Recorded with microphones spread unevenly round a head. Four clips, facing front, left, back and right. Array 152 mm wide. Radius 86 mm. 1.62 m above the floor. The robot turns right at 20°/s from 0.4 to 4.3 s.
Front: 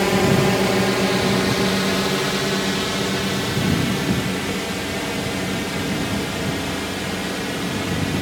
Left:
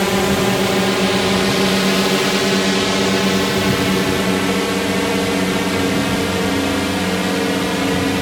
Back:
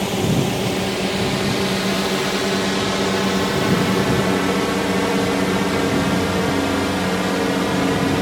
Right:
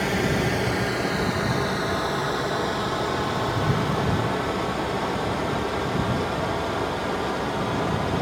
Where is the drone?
50° left; by 8.2 s 125° left.